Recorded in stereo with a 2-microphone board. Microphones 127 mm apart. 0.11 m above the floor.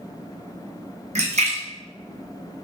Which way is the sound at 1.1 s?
70° right (ahead or behind).